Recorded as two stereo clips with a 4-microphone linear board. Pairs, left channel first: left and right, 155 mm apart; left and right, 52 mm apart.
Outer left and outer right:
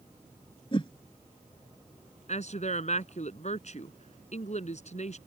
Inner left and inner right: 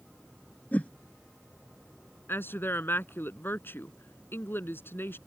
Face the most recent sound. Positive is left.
turn(degrees=45)  # may be behind; listen again after turning